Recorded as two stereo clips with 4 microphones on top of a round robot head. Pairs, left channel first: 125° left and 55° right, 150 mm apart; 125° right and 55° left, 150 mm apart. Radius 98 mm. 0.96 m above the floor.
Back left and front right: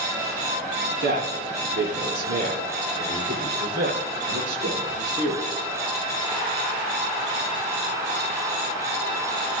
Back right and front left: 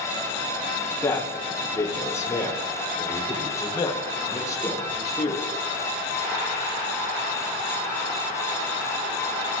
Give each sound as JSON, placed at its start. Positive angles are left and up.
{"t": 1.0, "sound": "a man speaking", "azimuth_deg": -55, "distance_m": 8.5}